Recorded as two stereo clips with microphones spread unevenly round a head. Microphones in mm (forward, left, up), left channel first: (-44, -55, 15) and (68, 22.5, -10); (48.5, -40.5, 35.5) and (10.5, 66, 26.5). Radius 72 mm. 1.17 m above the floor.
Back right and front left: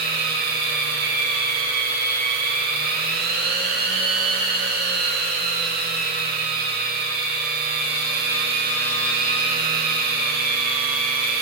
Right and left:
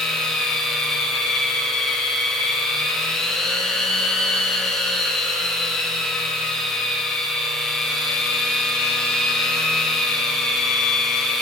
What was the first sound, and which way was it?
A machine running, 15° left.